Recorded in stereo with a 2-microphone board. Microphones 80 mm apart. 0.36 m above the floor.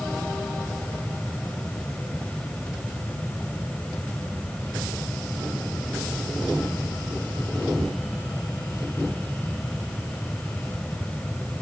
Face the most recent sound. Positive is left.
No sound to turn to.